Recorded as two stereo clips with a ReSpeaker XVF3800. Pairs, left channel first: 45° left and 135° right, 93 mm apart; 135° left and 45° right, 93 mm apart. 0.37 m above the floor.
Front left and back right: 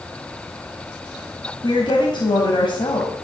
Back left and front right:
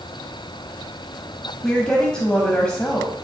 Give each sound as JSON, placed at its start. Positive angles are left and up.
{"t": 1.6, "sound": "a woman speaking", "azimuth_deg": 55, "distance_m": 2.5}